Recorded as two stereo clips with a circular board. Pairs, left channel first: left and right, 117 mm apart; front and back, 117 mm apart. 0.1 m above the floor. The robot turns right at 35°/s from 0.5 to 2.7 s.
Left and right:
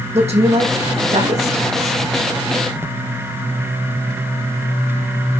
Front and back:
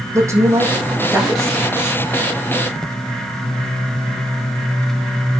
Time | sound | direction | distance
0.1 | a woman speaking | 115° right | 4 m